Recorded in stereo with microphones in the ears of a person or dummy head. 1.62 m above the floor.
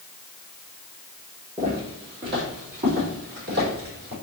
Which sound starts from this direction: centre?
Footsteps, at 1.6 s.